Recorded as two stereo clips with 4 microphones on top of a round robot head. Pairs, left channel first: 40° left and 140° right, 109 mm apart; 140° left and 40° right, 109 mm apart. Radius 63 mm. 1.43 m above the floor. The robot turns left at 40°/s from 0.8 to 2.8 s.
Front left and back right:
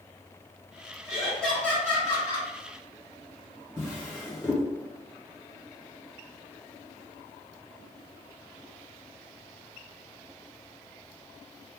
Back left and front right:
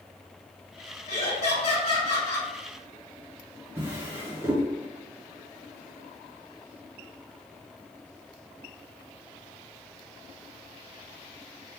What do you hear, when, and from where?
1.1 s laughter: 140° left, 1.8 m; by 2.5 s 85° left, 1.8 m
3.8 s a drawer: straight ahead, 1.1 m